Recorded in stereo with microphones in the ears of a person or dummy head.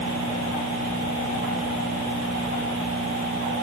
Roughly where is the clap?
No clap in this recording.